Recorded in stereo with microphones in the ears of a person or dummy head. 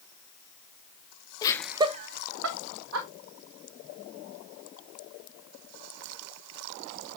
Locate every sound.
1.4 s laughter: 25° left (ahead or behind), 0.7 m; by 3.1 s 85° right, 1.7 m